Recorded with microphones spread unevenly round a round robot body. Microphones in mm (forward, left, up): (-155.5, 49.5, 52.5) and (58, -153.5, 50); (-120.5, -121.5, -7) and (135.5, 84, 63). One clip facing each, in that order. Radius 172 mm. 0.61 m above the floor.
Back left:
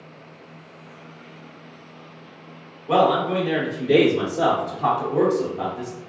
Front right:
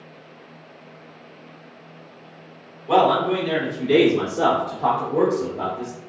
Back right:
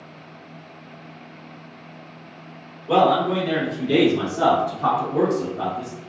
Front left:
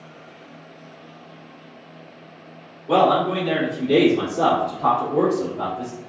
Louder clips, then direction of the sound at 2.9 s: Front right 1 dB, even; 80° right.